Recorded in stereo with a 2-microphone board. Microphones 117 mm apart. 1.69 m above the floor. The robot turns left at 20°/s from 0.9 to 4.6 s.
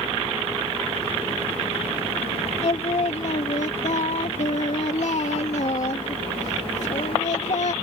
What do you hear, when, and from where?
2.6 s singing: 115° left; by 7.7 s 75° left